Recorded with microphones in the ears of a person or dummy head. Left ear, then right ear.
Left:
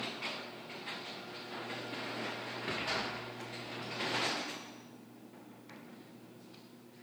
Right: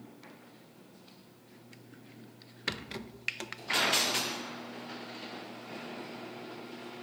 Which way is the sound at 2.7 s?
45° right (ahead or behind).